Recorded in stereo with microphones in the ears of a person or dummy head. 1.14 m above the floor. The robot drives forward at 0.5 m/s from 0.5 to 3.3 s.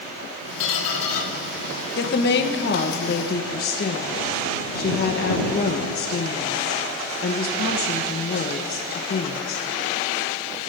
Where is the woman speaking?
55° left (ahead or behind), 1.0 m; by 9.7 s 45° left (ahead or behind), 1.2 m.